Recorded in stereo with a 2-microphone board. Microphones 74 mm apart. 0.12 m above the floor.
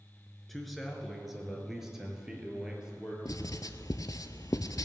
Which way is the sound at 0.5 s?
Centre (ahead or behind).